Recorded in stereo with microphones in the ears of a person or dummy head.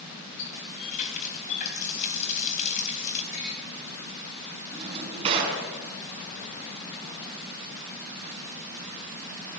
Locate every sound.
0.4 s a running tap: 40° left (ahead or behind), 4.5 m
3.3 s tapping: 35° left (ahead or behind), 9 m
4.7 s a drawer: 30° right (ahead or behind), 4.5 m